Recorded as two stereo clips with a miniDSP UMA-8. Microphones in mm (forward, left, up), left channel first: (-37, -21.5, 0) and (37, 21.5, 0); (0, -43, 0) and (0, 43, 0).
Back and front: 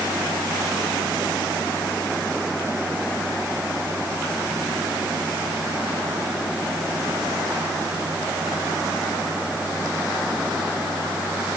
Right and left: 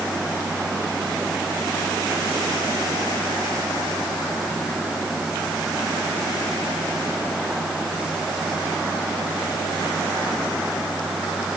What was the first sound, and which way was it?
Only background noise.